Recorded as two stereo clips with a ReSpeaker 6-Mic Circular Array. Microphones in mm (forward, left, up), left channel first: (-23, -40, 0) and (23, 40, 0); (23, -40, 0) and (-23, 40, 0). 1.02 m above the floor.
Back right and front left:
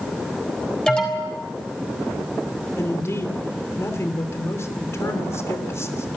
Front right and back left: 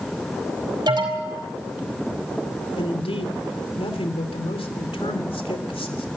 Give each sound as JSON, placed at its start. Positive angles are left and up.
{"t": 0.9, "sound": "an alarm", "azimuth_deg": 160, "distance_m": 5.0}
{"t": 2.8, "sound": "a man speaking", "azimuth_deg": -60, "distance_m": 3.0}